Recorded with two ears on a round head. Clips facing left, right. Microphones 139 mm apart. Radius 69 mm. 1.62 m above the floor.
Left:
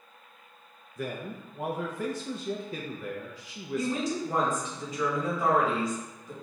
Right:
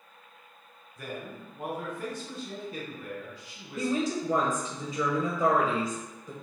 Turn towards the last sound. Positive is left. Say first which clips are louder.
# right 1 dB
turn(degrees=-75)  # may be behind; listen again after turning